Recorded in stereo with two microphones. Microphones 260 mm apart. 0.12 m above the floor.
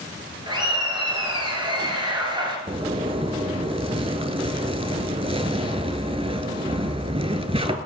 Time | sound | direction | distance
0.5 | laughter | 20° right (ahead or behind) | 2 m
2.7 | a zipper | 25° right (ahead or behind) | 0.6 m